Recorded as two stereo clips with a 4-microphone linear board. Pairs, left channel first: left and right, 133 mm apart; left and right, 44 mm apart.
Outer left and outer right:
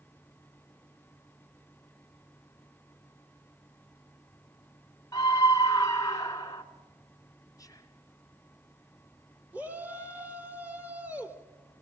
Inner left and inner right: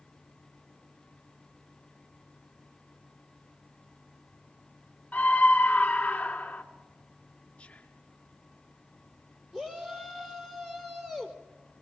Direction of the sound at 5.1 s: 25° left (ahead or behind).